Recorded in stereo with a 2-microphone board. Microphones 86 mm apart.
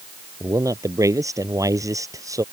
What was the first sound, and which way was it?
A man speaking, 40° right (ahead or behind).